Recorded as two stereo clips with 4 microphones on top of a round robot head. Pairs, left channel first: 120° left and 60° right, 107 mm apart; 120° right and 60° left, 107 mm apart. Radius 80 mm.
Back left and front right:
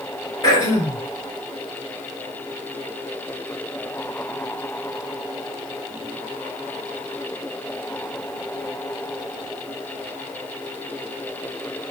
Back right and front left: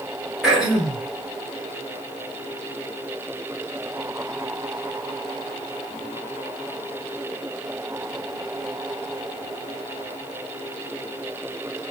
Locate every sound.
0.4 s throat clearing: 140° left, 1.5 m